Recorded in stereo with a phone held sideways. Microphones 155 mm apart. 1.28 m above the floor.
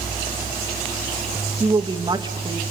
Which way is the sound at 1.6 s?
30° right (ahead or behind).